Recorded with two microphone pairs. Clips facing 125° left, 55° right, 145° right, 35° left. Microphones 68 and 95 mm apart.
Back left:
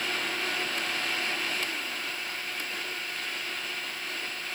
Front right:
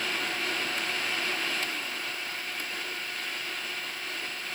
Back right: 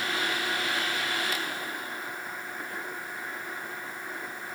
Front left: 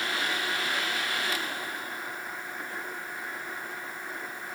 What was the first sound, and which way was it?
Only background noise.